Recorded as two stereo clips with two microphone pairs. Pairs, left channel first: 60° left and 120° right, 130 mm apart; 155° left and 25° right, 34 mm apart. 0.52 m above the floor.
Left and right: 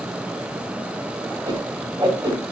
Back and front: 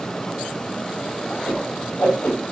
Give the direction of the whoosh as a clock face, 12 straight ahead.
6 o'clock.